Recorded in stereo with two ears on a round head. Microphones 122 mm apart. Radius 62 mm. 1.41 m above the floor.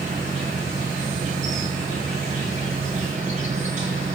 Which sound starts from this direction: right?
An insect, at 0.0 s.